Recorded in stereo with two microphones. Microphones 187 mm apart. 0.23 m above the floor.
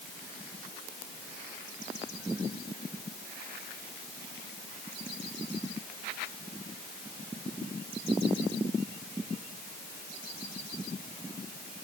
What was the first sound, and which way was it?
Only background noise.